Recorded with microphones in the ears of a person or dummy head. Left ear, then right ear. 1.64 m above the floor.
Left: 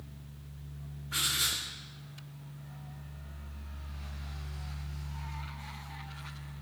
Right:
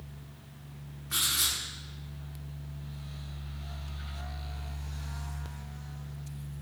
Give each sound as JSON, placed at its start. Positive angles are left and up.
{"t": 1.1, "sound": "writing", "side_deg": -55, "distance_m": 1.1}